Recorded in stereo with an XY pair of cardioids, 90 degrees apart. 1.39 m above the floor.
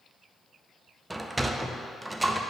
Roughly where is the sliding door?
Ahead.